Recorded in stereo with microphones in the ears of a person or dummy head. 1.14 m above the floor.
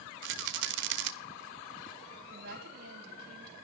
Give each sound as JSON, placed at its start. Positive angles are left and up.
{"t": 0.2, "sound": "a rattle", "side_deg": -60, "distance_m": 1.0}
{"t": 2.3, "sound": "a woman speaking", "side_deg": -65, "distance_m": 5.0}